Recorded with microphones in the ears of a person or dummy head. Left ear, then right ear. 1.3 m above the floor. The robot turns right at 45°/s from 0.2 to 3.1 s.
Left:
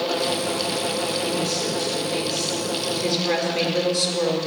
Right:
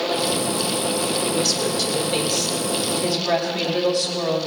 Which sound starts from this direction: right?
A woman speaking, at 1.2 s.